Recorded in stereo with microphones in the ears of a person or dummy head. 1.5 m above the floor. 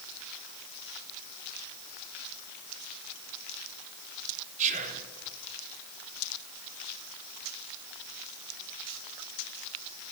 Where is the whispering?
40° right (ahead or behind), 1.2 m.